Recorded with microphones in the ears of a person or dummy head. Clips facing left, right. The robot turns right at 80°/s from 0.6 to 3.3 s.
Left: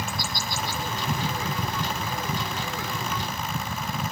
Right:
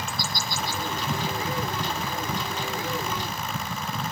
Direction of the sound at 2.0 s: 35° right (ahead or behind).